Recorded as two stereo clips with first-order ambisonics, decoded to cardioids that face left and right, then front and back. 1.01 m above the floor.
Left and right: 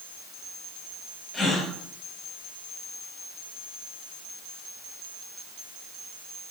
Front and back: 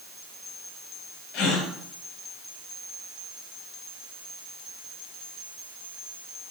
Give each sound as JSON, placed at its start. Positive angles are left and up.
{"t": 1.3, "sound": "a gasp", "azimuth_deg": 15, "distance_m": 1.6}